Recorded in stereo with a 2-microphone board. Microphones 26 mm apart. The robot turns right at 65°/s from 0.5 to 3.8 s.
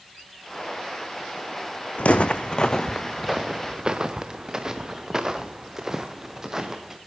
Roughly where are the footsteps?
Left.